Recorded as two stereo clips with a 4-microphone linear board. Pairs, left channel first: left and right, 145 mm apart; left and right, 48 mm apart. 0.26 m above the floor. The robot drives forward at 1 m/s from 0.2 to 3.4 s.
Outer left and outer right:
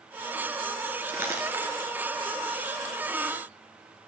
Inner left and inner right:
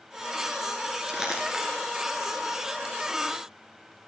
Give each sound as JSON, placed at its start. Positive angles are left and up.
{"t": 1.1, "sound": "crumpling", "side_deg": -15, "distance_m": 2.5}